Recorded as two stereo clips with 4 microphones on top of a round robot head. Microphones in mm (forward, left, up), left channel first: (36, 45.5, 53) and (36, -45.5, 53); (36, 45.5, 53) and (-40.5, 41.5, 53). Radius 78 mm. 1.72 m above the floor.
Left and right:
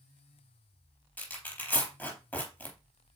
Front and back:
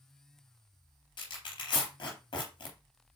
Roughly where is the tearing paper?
Ahead.